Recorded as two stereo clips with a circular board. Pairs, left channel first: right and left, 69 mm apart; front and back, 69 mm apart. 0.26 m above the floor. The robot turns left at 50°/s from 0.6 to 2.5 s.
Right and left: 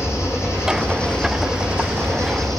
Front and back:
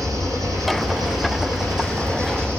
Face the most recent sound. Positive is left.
turn(degrees=120)